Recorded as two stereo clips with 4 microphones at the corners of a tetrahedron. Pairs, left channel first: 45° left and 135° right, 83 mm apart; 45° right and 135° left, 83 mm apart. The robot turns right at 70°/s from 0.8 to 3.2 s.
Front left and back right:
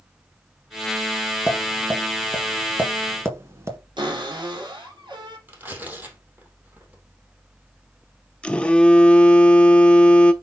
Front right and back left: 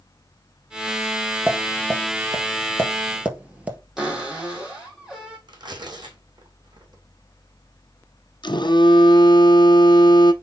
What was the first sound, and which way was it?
Tapping, 75° left.